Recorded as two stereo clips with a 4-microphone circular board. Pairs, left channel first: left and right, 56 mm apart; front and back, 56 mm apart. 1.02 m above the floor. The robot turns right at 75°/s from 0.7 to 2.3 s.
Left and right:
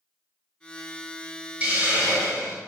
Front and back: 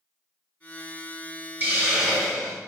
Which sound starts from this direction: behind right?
A hiss, at 1.6 s.